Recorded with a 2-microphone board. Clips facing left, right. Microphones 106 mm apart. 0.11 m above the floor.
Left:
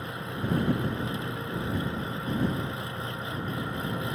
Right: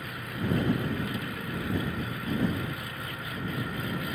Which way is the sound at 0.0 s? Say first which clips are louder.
Left 1 dB; 25° left (ahead or behind).